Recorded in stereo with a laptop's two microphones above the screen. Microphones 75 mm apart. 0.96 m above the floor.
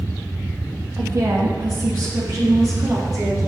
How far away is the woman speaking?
About 1.5 m.